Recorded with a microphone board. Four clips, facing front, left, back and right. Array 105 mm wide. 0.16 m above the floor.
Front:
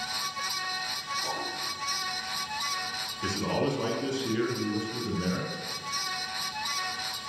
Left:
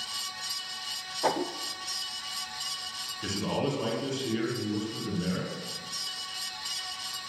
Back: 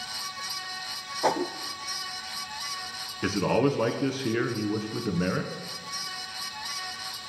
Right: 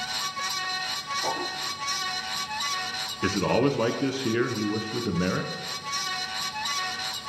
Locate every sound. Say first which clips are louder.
1.2 s a whoosh: left 4 dB, back 13 dB; 155° left, 0.7 m
3.2 s a man speaking: right 7 dB, back 5 dB; 125° right, 1.7 m